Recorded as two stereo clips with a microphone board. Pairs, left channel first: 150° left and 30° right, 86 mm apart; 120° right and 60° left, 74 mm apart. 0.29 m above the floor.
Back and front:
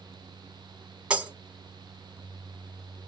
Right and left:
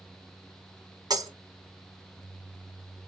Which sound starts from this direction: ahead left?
Breaking glass, at 1.1 s.